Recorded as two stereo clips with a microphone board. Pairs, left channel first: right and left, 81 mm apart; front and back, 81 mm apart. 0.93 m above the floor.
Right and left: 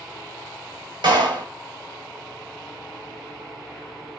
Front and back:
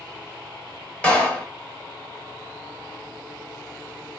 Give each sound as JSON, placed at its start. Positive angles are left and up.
{"t": 1.0, "sound": "a clap", "azimuth_deg": 75, "distance_m": 1.4}